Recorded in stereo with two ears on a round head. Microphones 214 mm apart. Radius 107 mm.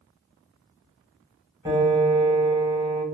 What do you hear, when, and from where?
1.6 s a piano: 15° right (ahead or behind), 1.1 m